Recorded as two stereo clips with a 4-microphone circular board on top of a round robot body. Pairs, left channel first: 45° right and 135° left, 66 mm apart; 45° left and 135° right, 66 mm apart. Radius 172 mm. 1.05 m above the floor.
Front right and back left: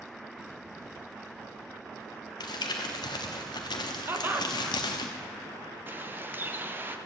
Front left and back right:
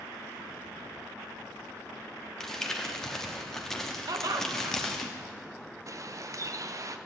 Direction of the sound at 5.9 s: 165° right.